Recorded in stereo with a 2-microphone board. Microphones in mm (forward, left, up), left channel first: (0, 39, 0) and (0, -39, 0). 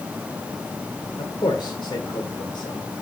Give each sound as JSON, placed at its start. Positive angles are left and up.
{"t": 1.2, "sound": "a man speaking", "side_deg": 65, "distance_m": 1.9}